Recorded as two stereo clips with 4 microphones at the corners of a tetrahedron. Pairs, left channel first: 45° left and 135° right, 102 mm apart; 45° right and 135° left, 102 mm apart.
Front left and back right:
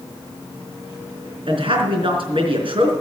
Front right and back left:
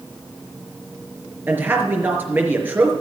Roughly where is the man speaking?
Behind right.